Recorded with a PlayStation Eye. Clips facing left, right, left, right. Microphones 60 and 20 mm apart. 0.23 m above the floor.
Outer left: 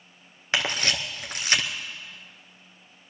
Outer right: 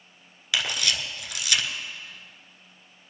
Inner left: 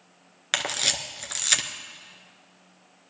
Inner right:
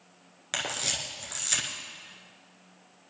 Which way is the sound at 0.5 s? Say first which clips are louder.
Outer left 2 dB, inner left 5 dB; 40° left (ahead or behind).